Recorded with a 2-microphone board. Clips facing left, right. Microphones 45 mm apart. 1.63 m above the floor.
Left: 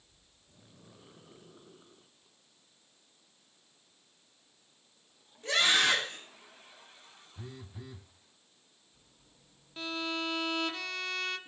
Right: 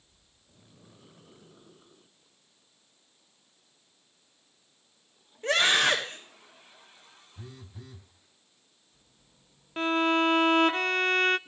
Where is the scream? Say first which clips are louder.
Right 3 dB; 45° right (ahead or behind), 6.5 m.